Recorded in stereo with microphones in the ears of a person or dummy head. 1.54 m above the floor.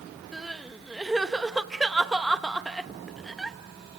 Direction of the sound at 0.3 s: Centre (ahead or behind).